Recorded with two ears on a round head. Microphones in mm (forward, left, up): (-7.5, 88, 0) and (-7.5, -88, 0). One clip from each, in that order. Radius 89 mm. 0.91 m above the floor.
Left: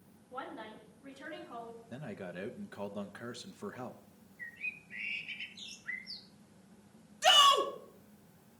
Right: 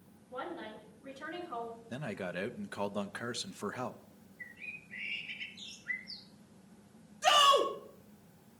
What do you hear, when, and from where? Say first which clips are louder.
0.3 s a woman speaking: right 2 dB; 25° left (ahead or behind), 7 m
1.9 s a man speaking: right 5 dB; 25° right (ahead or behind), 0.7 m
4.4 s a bird: left 4 dB; 30° left (ahead or behind), 1.3 m
7.2 s a shout: left 1 dB; 70° left (ahead or behind), 2.5 m